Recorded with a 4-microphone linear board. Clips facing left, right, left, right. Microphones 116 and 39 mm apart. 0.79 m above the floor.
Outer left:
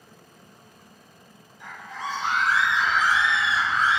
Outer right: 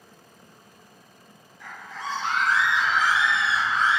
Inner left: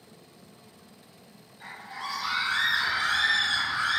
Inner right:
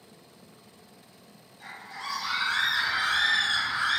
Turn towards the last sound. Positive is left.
turn(degrees=-30)  # may be behind; listen again after turning